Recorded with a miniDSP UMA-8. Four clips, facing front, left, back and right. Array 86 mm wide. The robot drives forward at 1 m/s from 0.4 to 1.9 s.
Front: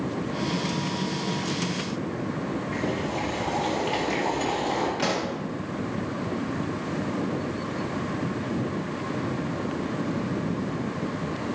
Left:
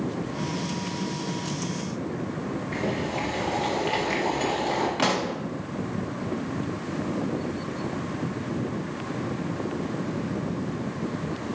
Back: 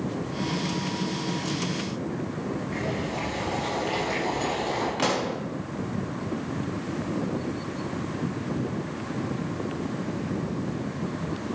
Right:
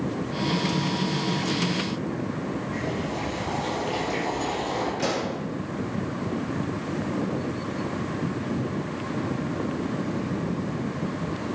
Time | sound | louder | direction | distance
2.7 | boiling | left 1 dB, front 2 dB | 85° left | 4 m
5.0 | a pop | left 2 dB, back 1 dB | 110° left | 1.3 m